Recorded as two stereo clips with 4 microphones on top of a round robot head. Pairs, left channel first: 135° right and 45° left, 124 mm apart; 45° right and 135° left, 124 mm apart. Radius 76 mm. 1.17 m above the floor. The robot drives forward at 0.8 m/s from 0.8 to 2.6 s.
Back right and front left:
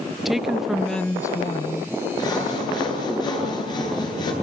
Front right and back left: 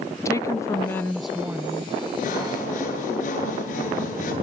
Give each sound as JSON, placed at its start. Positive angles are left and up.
{"t": 0.2, "sound": "a woman speaking", "azimuth_deg": -40, "distance_m": 0.6}
{"t": 2.2, "sound": "sawing", "azimuth_deg": -75, "distance_m": 9.0}